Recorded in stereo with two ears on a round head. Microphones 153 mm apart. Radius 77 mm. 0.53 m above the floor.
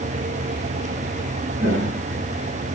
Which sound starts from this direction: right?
Footsteps, at 1.6 s.